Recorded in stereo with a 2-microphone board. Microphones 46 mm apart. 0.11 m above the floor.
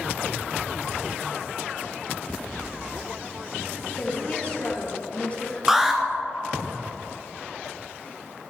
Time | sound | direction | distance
4.0 | a woman speaking | 30° left (ahead or behind) | 2.5 m
5.7 | an alarm | 10° right (ahead or behind) | 1.0 m